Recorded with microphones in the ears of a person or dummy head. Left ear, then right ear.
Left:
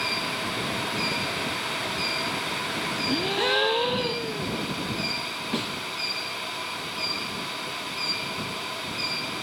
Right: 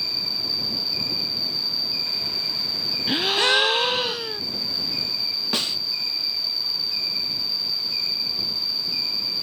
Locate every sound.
0.0 s an insect: 60° right (ahead or behind)
3.1 s a gasp: 60° right (ahead or behind)
5.5 s a snare drum: 50° right (ahead or behind)